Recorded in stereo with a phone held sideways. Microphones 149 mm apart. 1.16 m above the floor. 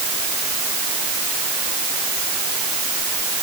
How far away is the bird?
I don't hear a bird.